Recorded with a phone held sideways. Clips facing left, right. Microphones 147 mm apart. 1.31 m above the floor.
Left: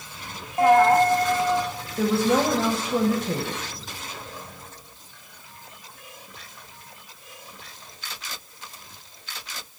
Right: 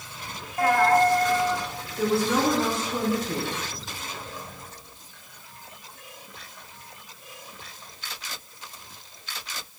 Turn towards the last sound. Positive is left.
turn(degrees=70)  # may be behind; listen again after turning